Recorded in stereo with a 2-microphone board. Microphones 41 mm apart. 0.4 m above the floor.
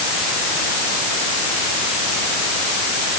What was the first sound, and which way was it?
Only background noise.